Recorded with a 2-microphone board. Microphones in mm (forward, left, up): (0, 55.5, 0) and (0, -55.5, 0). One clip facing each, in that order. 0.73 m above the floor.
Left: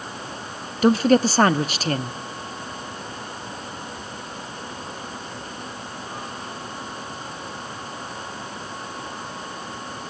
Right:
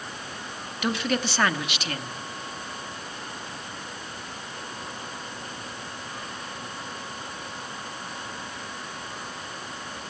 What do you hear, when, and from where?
0.8 s a woman speaking: 35° left (ahead or behind), 1.1 m